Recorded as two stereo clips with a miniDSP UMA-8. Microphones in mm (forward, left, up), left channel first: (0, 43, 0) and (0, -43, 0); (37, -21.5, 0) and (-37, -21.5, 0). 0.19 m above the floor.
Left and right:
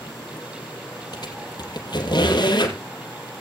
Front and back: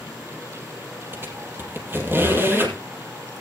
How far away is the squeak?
About 3 m.